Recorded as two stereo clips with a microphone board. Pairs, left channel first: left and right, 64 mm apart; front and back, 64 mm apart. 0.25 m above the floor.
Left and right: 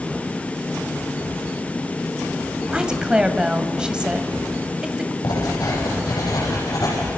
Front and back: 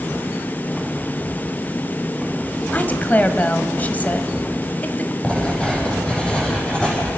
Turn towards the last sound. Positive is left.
turn(degrees=75)